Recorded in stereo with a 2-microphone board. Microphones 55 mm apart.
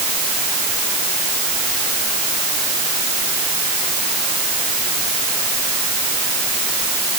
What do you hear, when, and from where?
Only background noise.